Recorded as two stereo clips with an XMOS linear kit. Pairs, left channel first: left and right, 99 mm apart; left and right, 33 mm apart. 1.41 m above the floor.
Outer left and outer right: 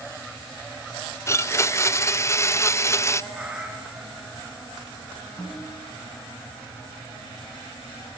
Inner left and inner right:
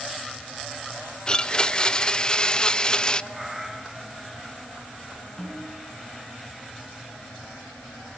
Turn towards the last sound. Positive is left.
turn(degrees=35)  # may be behind; listen again after turning